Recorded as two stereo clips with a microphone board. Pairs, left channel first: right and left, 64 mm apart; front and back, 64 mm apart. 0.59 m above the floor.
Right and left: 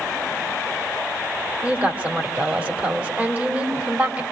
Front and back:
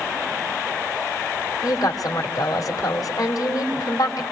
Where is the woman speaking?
30° left, 2.5 m.